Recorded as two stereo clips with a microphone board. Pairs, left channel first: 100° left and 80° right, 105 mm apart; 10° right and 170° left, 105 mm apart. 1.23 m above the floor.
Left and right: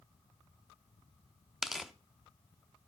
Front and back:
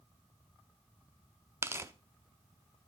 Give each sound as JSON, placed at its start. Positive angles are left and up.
{"t": 1.6, "sound": "tearing paper", "azimuth_deg": -165, "distance_m": 0.8}